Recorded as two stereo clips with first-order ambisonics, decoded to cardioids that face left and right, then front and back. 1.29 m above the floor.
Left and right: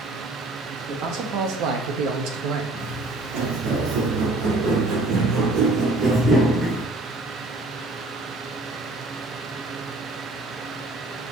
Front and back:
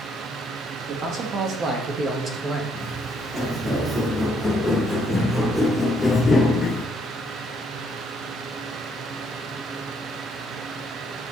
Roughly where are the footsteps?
Right.